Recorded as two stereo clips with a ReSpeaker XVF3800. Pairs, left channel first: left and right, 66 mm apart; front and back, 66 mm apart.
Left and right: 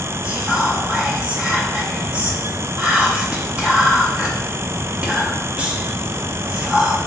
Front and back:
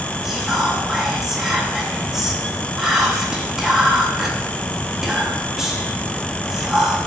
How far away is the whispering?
About 0.7 m.